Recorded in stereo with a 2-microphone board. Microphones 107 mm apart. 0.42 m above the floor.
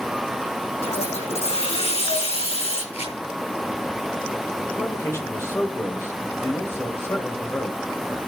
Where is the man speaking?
25° left (ahead or behind), 2 m.